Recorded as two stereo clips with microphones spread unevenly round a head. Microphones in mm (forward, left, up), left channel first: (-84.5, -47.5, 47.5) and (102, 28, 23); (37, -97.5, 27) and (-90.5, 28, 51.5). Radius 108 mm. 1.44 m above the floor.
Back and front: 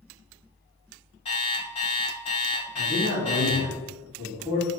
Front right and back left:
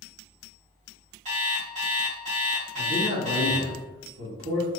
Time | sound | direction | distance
1.2 | an alarm clock | 155° left | 1.3 m
2.8 | a man speaking | 110° left | 1.7 m